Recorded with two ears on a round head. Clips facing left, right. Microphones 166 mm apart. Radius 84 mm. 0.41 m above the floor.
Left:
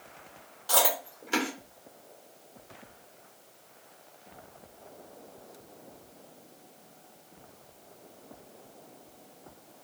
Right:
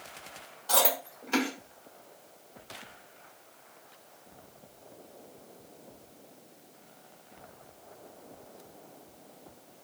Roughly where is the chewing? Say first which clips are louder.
Even; centre.